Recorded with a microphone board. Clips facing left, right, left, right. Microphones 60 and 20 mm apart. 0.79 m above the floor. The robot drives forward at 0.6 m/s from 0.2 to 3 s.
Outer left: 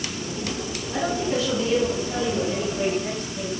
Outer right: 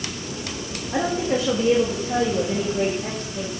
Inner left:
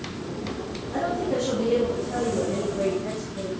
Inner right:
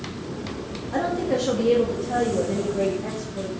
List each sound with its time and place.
0.9 s a woman speaking: 45° right (ahead or behind), 1.3 m; by 3.5 s 40° right (ahead or behind), 1.5 m